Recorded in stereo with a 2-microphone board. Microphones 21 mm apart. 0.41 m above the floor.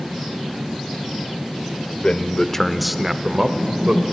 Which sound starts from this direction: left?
A man speaking, at 2.0 s.